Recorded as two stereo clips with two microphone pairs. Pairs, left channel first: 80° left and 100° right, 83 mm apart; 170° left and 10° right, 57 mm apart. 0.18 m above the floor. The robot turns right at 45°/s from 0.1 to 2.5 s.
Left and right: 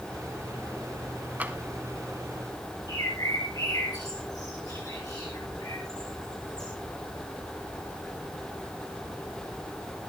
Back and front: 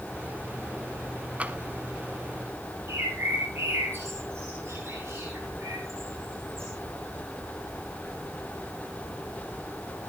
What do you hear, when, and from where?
1.4 s tapping: 45° right, 1.0 m; by 1.6 s 35° right, 1.0 m
2.9 s a bird: 40° left, 8 m